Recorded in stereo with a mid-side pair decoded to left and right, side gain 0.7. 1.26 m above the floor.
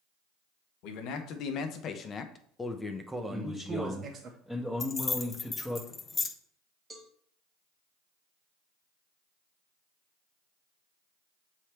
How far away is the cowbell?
About 1.5 m.